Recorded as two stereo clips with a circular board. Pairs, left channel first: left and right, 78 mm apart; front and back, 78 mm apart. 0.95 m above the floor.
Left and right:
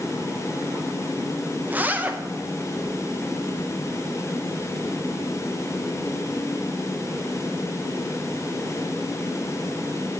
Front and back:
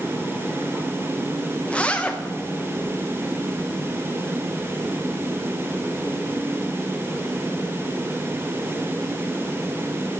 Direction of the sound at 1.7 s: 55° right.